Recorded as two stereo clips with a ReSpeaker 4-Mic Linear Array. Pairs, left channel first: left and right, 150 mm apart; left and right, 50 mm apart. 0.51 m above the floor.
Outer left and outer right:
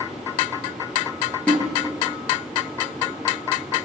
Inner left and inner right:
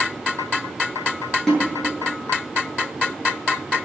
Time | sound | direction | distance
1.5 | a snare drum | 10° left (ahead or behind) | 8 m